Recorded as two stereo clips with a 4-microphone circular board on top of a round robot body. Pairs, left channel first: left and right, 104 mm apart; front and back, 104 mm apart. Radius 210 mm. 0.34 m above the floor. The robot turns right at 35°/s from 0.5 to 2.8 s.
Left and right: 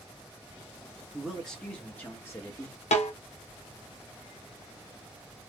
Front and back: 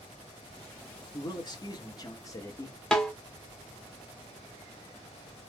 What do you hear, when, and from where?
1.1 s a man speaking: 5° right, 1.5 m; by 2.8 s 55° left, 1.5 m
2.9 s a snare drum: 85° left, 1.0 m